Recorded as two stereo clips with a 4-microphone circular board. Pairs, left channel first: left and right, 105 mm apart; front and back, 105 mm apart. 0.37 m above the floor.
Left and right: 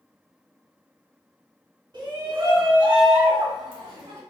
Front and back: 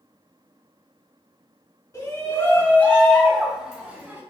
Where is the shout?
50° right, 1.9 m; by 4.2 s 120° right, 1.3 m.